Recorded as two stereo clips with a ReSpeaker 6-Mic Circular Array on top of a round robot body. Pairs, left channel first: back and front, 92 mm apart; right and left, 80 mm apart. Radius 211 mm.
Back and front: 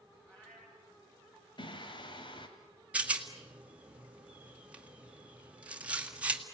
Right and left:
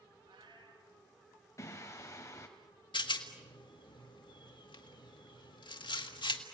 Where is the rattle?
75° right, 2 m.